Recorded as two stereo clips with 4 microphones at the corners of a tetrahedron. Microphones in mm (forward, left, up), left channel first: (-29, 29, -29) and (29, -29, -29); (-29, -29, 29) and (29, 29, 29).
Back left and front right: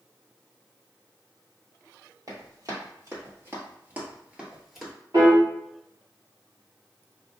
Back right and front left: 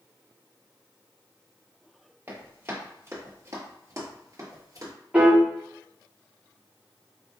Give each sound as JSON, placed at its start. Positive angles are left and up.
{"t": 2.3, "sound": "running footsteps", "azimuth_deg": -15, "distance_m": 1.8}
{"t": 5.1, "sound": "a piano", "azimuth_deg": -30, "distance_m": 1.3}